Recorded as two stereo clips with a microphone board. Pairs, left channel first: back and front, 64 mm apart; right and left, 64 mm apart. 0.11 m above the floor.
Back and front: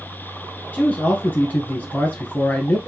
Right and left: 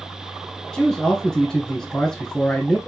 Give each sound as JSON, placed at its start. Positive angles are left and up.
{"t": 0.7, "sound": "a man speaking", "azimuth_deg": -155, "distance_m": 1.1}